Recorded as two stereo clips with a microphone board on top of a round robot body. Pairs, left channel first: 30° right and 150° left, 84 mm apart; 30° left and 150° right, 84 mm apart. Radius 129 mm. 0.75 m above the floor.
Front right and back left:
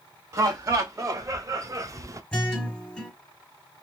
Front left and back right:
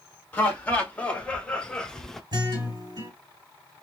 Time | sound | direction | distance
0.3 | laughter | 100° left | 1.8 m
2.3 | a guitar | 110° right | 1.9 m